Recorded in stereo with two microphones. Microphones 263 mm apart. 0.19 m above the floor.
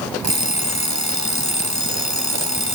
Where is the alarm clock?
70° left (ahead or behind), 1.7 m.